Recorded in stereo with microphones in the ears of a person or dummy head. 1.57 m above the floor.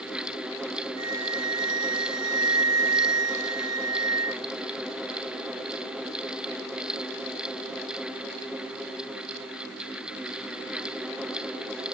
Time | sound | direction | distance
1.0 | a flute | 90° right | 0.6 m